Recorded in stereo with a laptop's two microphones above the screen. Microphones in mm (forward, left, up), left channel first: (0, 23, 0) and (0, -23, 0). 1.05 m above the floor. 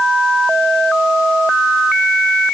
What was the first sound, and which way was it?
Only background noise.